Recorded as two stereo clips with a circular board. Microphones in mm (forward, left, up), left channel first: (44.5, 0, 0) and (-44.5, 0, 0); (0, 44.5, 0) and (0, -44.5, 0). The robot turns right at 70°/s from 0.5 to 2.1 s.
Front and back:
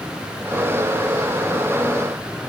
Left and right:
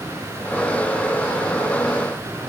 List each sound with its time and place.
Only background noise.